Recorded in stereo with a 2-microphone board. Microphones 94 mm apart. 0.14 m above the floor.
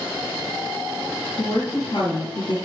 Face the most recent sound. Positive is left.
turn(degrees=60)  # may be behind; listen again after turning